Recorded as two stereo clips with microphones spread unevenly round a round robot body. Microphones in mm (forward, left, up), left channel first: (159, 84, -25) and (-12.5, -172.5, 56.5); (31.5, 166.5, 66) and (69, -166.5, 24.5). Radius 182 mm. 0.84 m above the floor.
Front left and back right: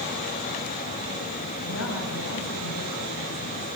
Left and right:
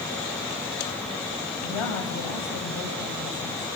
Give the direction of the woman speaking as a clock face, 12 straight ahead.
8 o'clock.